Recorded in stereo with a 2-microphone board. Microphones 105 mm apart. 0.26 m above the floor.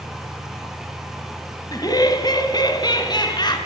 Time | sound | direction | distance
1.7 | laughter | 40° left (ahead or behind) | 2 m